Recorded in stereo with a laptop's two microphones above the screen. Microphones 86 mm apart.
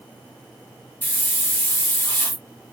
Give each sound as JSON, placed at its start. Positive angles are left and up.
{"t": 1.0, "sound": "a hiss", "side_deg": 20, "distance_m": 0.9}